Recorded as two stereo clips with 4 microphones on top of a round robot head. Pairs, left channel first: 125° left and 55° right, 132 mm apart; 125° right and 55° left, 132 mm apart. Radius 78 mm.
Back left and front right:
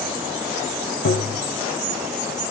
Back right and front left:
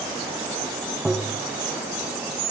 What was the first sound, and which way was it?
Tapping, 140° left.